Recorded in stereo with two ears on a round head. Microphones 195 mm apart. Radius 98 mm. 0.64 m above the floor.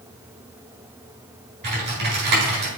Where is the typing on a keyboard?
55° right (ahead or behind), 4 m.